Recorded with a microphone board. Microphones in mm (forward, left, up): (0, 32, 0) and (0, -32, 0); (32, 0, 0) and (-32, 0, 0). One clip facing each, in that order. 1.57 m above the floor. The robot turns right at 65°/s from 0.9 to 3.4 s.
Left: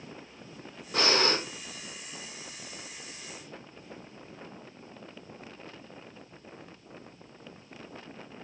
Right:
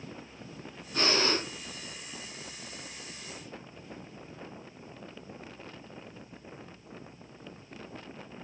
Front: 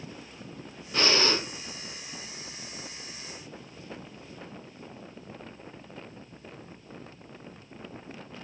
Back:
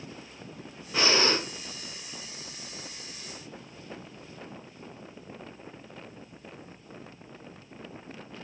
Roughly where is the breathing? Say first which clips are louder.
Left 2 dB, back 1 dB; left.